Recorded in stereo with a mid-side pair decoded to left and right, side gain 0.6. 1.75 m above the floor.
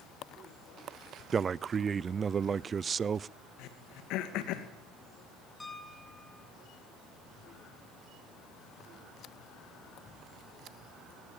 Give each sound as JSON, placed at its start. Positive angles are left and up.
{"t": 1.3, "sound": "a man speaking", "azimuth_deg": -35, "distance_m": 0.6}
{"t": 3.6, "sound": "throat clearing", "azimuth_deg": 70, "distance_m": 2.5}
{"t": 5.6, "sound": "a piano", "azimuth_deg": 15, "distance_m": 2.0}